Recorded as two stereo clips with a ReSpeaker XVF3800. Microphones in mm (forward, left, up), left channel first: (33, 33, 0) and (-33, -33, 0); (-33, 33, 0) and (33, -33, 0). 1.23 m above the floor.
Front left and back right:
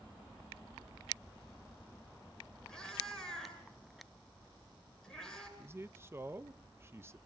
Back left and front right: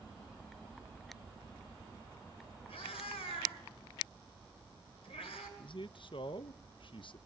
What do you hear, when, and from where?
2.7 s a cat meowing: 130° left, 9 m
5.6 s a man speaking: 160° left, 0.8 m